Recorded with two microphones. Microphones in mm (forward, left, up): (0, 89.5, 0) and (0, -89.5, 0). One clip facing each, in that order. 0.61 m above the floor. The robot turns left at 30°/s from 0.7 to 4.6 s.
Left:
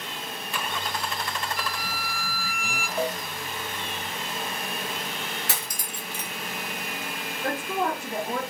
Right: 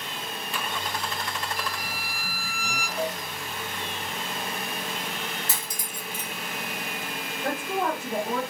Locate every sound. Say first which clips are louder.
1.6 s a violin: left 1 dB; 10° right, 1.4 m; by 2.9 s 50° right, 1.4 m
3.0 s a cowbell: left 2 dB; 45° left (ahead or behind), 0.6 m; by 3.2 s 50° left (ahead or behind), 0.6 m
5.5 s cutlery clinking: left 1 dB; 65° left (ahead or behind), 0.6 m
7.4 s a woman speaking: even; centre (ahead or behind), 1.1 m